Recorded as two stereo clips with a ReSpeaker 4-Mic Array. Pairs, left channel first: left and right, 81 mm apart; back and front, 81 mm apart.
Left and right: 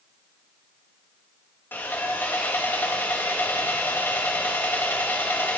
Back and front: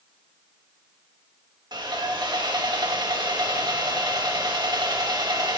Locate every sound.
1.7 s sawing: 25° left, 2.5 m